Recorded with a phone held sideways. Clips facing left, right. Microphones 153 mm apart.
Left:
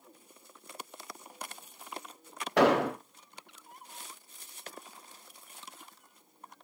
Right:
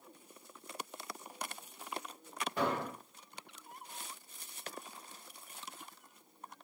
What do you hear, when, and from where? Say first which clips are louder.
2.6 s an explosion: left 12 dB; 75° left (ahead or behind), 0.5 m